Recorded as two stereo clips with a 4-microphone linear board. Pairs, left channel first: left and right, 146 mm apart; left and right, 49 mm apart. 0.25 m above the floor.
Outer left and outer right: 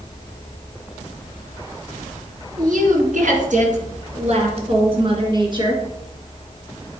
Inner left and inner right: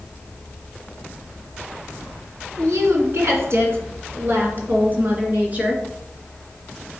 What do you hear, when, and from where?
2.6 s a woman speaking: 70° right (ahead or behind), 2.5 m; by 5.8 s 30° right (ahead or behind), 3 m